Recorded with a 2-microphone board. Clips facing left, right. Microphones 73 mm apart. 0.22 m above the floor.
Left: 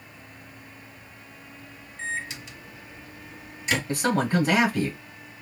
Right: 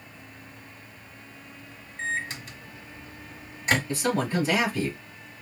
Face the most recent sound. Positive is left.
turn(degrees=50)  # may be behind; listen again after turning